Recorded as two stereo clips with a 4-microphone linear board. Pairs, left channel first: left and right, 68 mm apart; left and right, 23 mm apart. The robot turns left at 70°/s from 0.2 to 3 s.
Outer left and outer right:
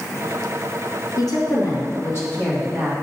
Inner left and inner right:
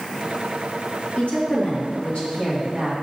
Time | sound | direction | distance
1.2 | a woman speaking | 120° left | 1.9 m